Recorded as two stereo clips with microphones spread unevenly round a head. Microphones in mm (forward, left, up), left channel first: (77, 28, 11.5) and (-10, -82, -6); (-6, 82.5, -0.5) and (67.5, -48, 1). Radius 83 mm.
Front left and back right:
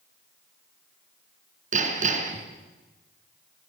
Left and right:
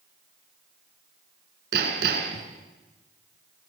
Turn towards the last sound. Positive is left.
turn(degrees=-95)